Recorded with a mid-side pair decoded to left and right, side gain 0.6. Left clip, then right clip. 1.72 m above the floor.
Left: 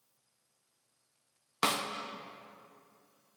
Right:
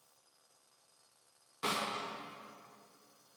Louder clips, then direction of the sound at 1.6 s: Left 5 dB; 65° left.